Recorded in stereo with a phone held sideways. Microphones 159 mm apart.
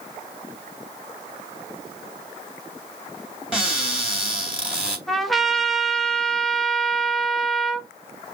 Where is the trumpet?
Centre (ahead or behind), 1.0 m.